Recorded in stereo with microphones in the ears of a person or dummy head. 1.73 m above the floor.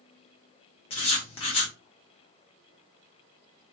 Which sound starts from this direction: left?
Writing, at 0.9 s.